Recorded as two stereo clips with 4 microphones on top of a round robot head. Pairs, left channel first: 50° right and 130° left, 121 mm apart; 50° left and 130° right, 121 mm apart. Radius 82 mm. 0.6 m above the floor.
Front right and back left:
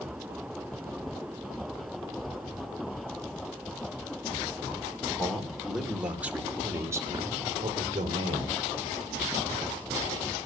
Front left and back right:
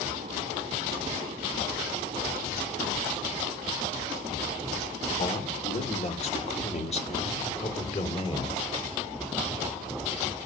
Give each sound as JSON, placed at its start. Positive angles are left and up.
{"t": 5.2, "sound": "a man speaking", "azimuth_deg": 35, "distance_m": 2.0}